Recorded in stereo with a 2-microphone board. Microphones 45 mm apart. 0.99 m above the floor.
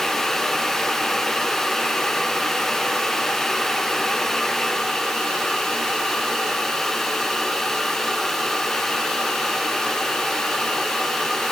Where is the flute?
I don't hear a flute.